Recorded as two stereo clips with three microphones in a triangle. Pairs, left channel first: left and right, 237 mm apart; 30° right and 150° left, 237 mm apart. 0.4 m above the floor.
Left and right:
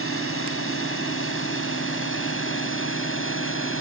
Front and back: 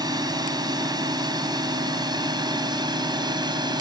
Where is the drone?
80° left.